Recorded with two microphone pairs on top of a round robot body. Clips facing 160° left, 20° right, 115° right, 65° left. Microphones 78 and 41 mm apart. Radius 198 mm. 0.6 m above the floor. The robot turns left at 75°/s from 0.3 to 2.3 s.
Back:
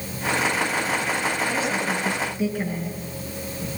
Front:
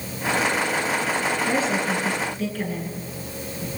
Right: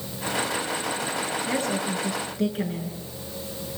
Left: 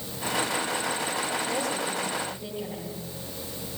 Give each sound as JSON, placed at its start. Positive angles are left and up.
{"t": 1.5, "sound": "a woman speaking", "azimuth_deg": -65, "distance_m": 9.5}